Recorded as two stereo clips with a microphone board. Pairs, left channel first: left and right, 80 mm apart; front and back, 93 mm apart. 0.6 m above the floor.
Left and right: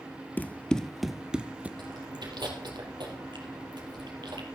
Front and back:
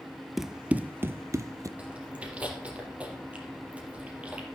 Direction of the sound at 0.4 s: 95° left.